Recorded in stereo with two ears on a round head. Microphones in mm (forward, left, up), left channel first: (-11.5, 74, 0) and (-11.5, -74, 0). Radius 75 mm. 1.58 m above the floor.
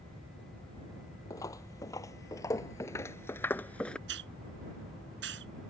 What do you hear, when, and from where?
1.3 s footsteps: 20° left (ahead or behind); by 4.0 s 5° left (ahead or behind)
4.1 s a hiss: 85° right